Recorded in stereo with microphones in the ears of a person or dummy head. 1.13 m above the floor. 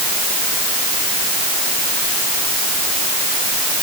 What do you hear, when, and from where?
Only background noise.